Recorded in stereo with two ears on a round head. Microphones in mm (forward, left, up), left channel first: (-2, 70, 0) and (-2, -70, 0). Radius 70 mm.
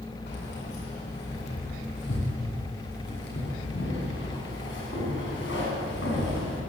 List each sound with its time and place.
0.3 s keys jangling: 75° left (ahead or behind), 10 m; by 6.6 s 85° left, 8.5 m